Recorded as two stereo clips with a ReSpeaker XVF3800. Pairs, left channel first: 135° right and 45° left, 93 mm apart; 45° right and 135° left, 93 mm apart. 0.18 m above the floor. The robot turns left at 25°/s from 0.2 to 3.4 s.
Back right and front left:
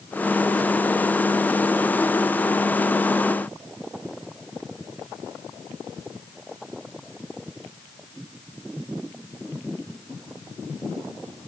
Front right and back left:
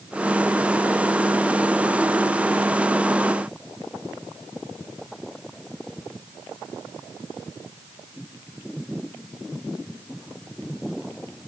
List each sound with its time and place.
Only background noise.